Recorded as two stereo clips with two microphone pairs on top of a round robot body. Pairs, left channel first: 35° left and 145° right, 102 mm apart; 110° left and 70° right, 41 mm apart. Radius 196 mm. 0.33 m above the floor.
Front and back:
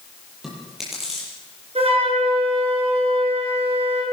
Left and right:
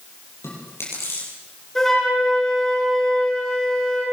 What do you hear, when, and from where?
0.4 s chewing: 125° left, 8 m
1.8 s a flute: 170° right, 7.5 m